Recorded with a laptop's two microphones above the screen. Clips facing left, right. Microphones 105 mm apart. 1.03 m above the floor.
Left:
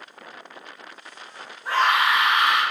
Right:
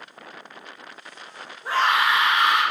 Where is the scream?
5° right (ahead or behind), 1.8 m.